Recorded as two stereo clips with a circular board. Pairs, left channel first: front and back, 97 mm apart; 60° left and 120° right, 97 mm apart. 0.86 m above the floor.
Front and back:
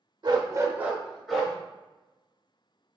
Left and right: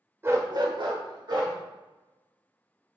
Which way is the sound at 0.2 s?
175° right.